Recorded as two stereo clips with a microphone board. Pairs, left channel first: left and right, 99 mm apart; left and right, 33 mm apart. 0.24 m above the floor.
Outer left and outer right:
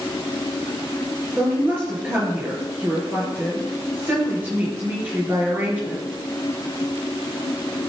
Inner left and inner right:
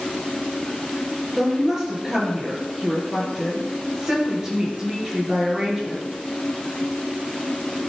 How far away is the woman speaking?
About 5 m.